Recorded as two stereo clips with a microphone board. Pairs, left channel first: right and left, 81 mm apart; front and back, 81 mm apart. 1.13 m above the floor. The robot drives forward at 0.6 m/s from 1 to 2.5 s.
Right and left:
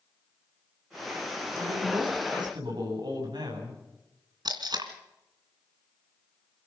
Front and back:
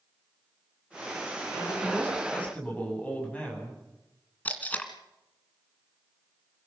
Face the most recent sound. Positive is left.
turn(degrees=70)